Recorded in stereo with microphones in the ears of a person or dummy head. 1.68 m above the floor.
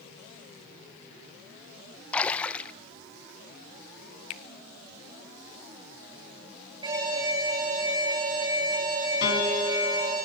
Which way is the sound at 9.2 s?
55° left (ahead or behind).